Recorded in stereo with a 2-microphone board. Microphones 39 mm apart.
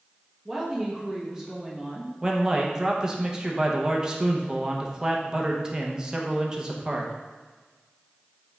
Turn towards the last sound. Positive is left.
turn(degrees=-20)  # may be behind; listen again after turning